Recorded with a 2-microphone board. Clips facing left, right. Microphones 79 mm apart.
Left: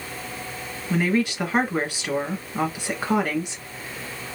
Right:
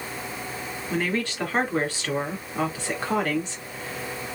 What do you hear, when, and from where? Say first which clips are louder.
0.9 s a woman speaking: left 5 dB; 15° left (ahead or behind), 1.3 m